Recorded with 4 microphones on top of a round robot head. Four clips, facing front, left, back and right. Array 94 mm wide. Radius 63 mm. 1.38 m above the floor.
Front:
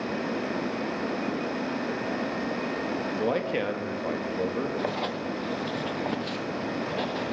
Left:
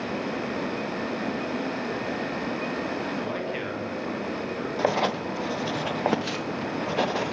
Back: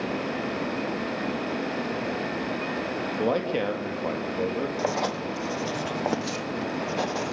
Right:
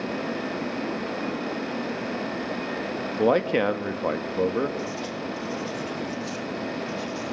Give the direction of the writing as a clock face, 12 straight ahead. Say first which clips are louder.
Left 7 dB, back 3 dB; 8 o'clock.